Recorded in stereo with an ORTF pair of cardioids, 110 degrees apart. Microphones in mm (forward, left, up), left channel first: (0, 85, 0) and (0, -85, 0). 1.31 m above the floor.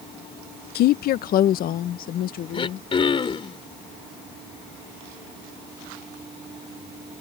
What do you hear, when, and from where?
0.8 s a woman speaking: 65° left; by 2.9 s 60° left
2.5 s throat clearing: 30° left